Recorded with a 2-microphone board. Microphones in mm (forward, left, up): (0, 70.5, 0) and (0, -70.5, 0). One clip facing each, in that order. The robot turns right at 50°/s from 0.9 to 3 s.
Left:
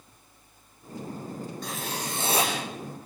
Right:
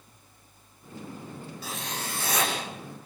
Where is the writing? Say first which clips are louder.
Even; 5° right, 8 m; by 2.5 s 40° left, 8 m.